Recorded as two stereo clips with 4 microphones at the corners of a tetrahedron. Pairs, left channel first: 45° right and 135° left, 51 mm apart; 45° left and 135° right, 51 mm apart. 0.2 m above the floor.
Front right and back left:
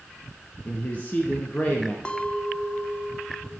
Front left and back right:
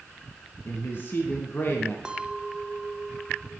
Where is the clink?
85° right, 0.8 m.